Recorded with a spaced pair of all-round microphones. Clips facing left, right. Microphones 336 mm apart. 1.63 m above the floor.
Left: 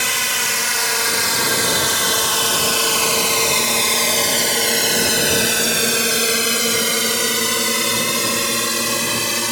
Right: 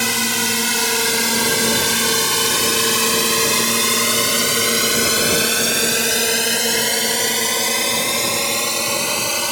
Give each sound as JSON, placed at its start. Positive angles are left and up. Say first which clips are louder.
{"t": 0.0, "sound": "a drone", "louder": "right 7 dB", "side_deg": -55}